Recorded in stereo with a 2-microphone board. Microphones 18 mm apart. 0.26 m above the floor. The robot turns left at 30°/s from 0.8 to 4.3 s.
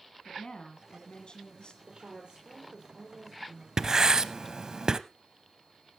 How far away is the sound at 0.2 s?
About 2.5 m.